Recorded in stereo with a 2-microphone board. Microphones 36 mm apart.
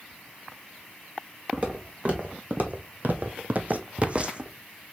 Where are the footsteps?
35° right (ahead or behind), 1.4 m; by 4.5 s 25° right (ahead or behind), 0.9 m.